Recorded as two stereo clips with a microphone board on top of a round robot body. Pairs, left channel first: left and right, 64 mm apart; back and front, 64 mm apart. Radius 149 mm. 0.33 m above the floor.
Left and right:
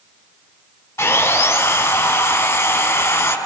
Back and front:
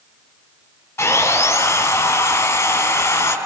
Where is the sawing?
135° left, 6.5 m.